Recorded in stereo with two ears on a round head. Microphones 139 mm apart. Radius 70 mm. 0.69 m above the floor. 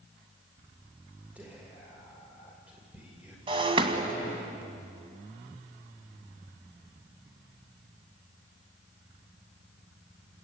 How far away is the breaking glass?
About 2 m.